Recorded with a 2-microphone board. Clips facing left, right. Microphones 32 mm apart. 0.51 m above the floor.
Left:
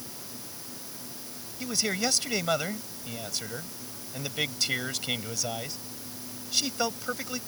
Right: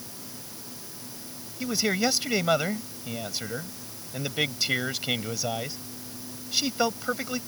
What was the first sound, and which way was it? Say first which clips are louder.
A man speaking: right 4 dB; 10° right (ahead or behind).